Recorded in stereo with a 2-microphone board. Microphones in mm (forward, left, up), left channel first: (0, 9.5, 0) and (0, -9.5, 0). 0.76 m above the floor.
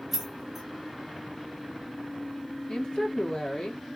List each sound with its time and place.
0.1 s keys jangling: 10° right (ahead or behind), 1.2 m
2.7 s a woman speaking: 55° left (ahead or behind), 1.7 m